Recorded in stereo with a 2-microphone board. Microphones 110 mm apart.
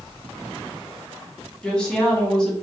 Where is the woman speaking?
5° left (ahead or behind), 0.9 m.